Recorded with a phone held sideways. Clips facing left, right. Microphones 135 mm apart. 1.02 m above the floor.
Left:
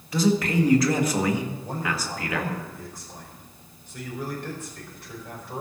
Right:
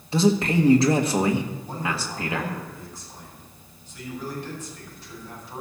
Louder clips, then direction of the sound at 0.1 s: Right 2 dB; 30° right (ahead or behind).